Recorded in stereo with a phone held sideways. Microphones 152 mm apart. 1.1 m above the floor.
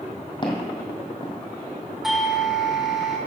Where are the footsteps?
30° left (ahead or behind), 2.5 m.